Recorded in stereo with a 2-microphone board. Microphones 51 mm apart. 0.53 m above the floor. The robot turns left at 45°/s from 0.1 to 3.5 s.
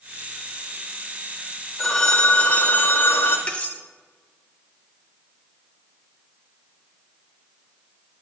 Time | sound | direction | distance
1.8 | a phone ringing | 175° left | 1.0 m
3.5 | cutlery clinking | 25° left (ahead or behind) | 0.7 m